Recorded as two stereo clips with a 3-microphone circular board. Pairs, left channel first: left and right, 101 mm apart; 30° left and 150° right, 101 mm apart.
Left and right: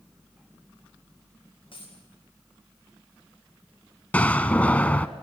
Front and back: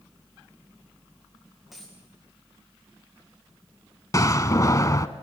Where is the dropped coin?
120° left, 7 m.